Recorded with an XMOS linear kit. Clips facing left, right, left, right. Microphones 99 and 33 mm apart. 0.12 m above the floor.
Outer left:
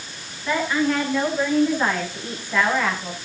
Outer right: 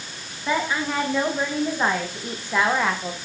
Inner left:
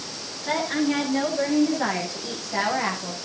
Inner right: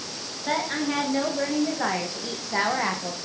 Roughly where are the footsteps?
No footsteps in this recording.